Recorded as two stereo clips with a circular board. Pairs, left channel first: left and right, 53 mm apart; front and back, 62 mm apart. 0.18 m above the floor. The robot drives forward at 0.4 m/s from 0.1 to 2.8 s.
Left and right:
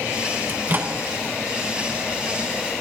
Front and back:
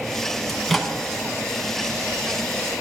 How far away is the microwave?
About 1.1 m.